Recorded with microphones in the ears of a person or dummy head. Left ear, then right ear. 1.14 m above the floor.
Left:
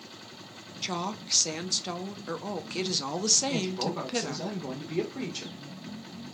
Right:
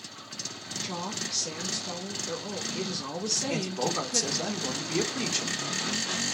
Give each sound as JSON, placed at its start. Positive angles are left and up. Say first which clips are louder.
{"t": 0.8, "sound": "a woman speaking", "louder": "left 2 dB", "side_deg": 20, "distance_m": 0.6}
{"t": 3.5, "sound": "a man speaking", "louder": "right 2 dB", "side_deg": -75, "distance_m": 1.2}